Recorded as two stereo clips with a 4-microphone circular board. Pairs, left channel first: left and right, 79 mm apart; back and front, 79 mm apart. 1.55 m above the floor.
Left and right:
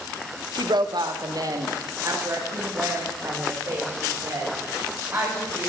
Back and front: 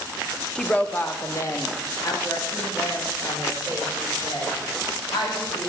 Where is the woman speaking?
100° right, 1.2 m; by 5.7 s 155° right, 6.5 m.